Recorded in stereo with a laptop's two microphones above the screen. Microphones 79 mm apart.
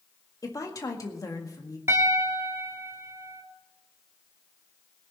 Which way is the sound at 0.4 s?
45° left (ahead or behind).